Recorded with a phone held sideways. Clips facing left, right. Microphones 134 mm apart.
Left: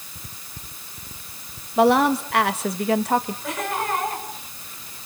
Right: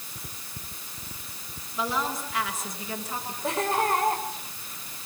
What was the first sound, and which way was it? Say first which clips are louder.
A woman speaking: left 13 dB; 60° left (ahead or behind).